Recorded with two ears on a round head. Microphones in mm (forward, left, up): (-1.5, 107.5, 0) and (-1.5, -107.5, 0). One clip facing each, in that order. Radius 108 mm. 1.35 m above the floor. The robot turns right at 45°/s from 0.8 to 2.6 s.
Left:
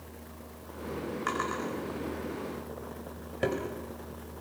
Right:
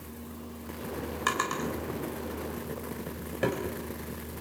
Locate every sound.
1.3 s a drawer: 60° right (ahead or behind), 4.5 m; by 3.6 s centre (ahead or behind), 4.5 m